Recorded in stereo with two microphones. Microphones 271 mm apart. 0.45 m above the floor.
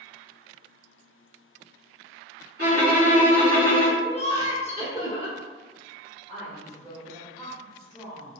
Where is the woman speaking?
15° left (ahead or behind), 1.9 m.